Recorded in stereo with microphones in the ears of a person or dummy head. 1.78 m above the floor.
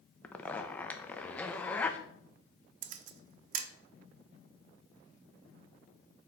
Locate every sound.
0.2 s a zipper: 10° left (ahead or behind), 0.7 m
2.8 s a camera shutter: 50° right (ahead or behind), 0.8 m